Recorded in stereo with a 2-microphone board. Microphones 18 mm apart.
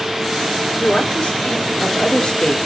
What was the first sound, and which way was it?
A woman speaking, 60° left (ahead or behind).